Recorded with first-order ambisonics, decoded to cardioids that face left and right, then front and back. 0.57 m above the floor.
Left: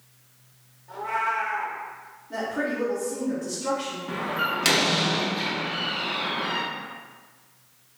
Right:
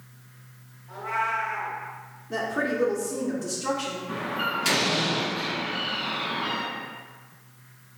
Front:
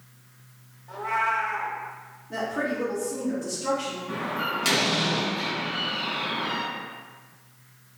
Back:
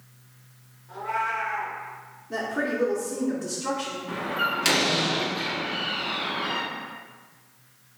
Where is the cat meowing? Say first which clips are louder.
Left 1 dB, front 2 dB; 15° left, 1.0 m.